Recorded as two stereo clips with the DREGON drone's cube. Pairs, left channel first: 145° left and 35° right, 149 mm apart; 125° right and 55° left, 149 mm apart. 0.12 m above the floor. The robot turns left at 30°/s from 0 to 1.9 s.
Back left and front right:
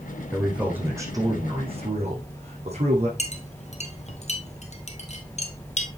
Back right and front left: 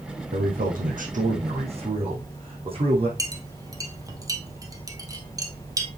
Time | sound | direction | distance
0.3 | a man speaking | 55° left | 4 m
3.2 | a clink | 120° left | 1.6 m